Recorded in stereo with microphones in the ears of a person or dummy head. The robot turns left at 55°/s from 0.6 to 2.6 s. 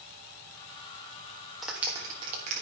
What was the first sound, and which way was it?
A clap, 5° left (ahead or behind).